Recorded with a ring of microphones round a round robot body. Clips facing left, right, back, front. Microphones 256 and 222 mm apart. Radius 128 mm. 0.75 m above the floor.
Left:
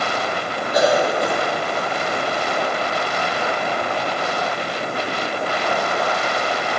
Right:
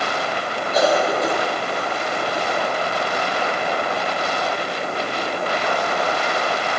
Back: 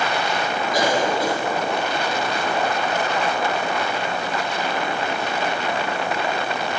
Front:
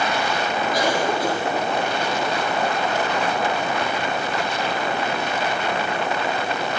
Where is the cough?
165° left, 5 m.